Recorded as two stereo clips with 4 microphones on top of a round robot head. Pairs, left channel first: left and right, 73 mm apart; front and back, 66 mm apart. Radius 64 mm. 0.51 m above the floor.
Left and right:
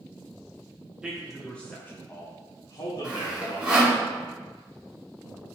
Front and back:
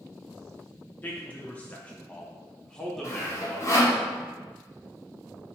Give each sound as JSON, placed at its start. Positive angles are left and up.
{"t": 1.0, "sound": "a man speaking", "azimuth_deg": -25, "distance_m": 0.7}
{"t": 3.0, "sound": "sawing", "azimuth_deg": -20, "distance_m": 1.0}